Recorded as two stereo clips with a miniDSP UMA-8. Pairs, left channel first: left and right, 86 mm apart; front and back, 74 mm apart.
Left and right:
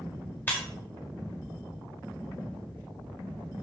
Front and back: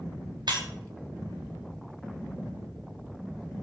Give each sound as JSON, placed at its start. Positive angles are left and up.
{"t": 0.5, "sound": "breaking glass", "azimuth_deg": 155, "distance_m": 4.0}